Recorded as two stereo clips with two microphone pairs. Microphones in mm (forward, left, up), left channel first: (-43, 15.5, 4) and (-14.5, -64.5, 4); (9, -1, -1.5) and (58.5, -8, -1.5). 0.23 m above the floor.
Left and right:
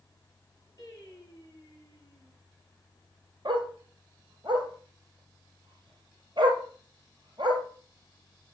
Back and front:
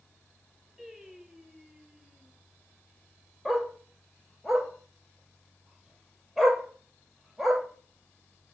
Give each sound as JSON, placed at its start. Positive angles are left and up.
{"t": 0.8, "sound": "singing", "azimuth_deg": 65, "distance_m": 5.0}
{"t": 3.5, "sound": "a dog barking", "azimuth_deg": -90, "distance_m": 2.5}